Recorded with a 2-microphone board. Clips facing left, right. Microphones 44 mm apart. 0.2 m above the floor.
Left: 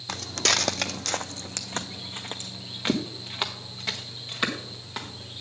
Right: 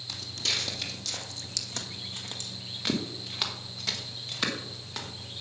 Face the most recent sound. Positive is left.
turn(degrees=15)  # may be behind; listen again after turning